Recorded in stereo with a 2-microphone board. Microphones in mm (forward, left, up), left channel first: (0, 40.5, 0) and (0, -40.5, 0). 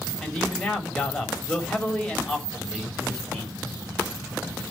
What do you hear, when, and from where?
0.2 s a man speaking: 10° left (ahead or behind), 4 m